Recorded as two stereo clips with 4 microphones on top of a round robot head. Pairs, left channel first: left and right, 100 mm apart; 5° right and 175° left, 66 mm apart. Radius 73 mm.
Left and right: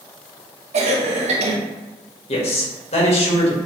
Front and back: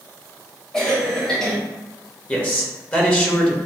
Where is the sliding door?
I don't hear a sliding door.